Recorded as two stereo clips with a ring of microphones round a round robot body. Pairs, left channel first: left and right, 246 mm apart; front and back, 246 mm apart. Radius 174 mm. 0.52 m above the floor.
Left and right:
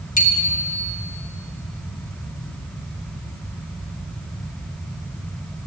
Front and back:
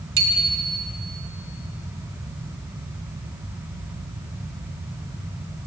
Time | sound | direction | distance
0.2 | a bicycle bell | 150° left | 3.5 m